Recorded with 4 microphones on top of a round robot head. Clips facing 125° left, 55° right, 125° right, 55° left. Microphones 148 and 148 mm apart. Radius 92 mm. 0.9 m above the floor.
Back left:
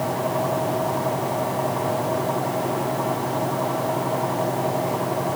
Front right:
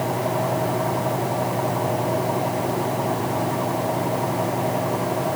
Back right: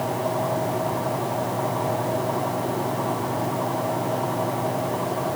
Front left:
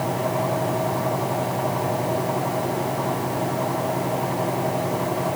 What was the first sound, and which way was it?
Only background noise.